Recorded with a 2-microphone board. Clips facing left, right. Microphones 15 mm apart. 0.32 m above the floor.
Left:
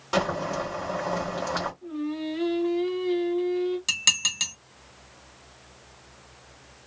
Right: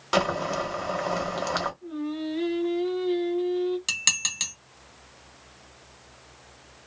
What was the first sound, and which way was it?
Boiling, 25° right (ahead or behind).